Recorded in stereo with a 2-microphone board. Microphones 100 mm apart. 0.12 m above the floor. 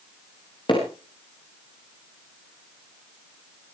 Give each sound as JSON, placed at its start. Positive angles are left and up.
{"t": 0.7, "sound": "hammering", "side_deg": 50, "distance_m": 7.0}